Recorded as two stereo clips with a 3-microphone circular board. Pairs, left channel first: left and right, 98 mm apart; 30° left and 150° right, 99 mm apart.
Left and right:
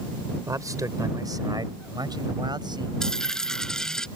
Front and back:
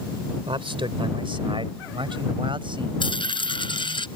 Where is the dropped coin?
5° left.